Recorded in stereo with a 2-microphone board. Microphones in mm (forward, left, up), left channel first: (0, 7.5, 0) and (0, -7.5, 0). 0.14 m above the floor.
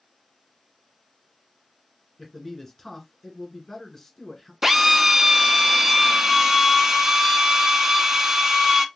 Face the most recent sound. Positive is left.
turn(degrees=-25)  # may be behind; listen again after turning